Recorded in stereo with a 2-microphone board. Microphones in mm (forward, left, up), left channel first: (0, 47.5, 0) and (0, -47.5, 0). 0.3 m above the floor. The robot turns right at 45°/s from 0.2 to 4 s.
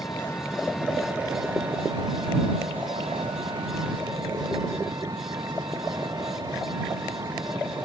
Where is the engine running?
150° left; by 7.9 s 40° right.